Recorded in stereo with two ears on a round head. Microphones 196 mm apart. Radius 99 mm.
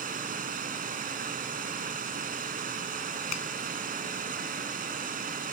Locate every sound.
0.0 s running water: 40° right (ahead or behind)
3.3 s a finger snap: 85° left